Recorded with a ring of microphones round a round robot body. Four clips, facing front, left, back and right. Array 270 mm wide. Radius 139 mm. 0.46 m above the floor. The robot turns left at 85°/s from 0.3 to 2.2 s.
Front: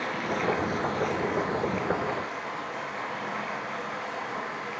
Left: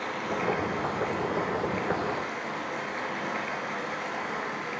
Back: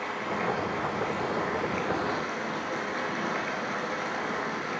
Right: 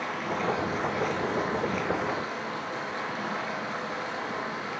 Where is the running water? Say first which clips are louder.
Even, front 2 dB; 5° left, 3.5 m; by 4.8 s 155° right, 3.5 m.